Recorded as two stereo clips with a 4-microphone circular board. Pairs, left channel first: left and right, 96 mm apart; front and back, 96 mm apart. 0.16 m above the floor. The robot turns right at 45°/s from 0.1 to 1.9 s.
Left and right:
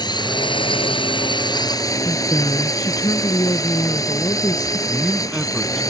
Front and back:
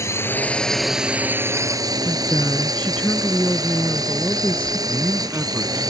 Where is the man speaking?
170° right.